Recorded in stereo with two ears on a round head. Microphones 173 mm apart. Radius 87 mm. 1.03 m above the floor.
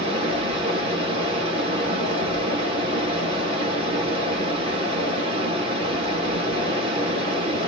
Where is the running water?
30° right (ahead or behind), 1.3 m.